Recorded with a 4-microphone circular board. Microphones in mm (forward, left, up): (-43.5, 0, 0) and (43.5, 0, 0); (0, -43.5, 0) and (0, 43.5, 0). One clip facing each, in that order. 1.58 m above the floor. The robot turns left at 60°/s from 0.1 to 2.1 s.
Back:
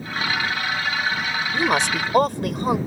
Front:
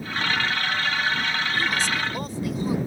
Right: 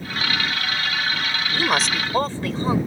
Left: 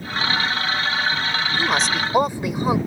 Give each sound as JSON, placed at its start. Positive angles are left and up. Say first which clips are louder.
{"t": 1.5, "sound": "a woman speaking", "louder": "back 8 dB, right 1 dB", "azimuth_deg": -160}